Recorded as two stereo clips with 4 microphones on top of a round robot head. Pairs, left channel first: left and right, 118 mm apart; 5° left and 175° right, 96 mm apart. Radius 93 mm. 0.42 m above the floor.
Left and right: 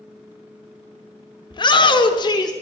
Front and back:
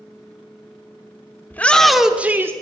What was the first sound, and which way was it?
A shout, 70° left.